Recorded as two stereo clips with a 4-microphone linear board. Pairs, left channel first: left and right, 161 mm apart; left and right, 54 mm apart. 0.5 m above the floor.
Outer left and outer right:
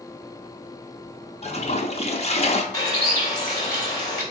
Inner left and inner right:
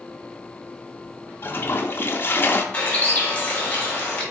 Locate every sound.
1.4 s a toilet flushing: 40° left (ahead or behind), 0.6 m
2.7 s a bird: 20° left (ahead or behind), 1.4 m